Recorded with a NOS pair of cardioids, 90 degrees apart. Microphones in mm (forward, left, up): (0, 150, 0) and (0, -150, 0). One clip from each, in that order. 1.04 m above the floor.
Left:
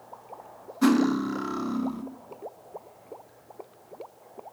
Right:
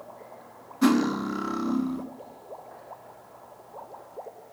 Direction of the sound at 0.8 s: Straight ahead.